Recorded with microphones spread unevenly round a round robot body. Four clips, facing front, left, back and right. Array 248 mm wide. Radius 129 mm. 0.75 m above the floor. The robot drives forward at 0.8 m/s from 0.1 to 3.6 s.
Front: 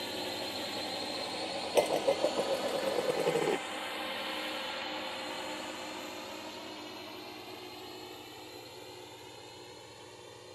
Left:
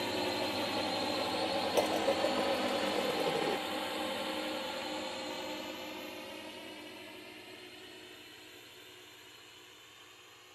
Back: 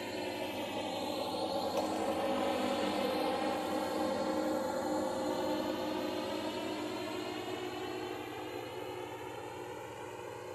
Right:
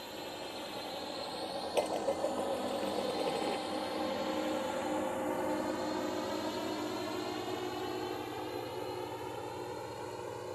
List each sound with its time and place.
0.0 s a drone: 105° left; by 10.6 s 105° right
1.8 s dishes clattering: 10° left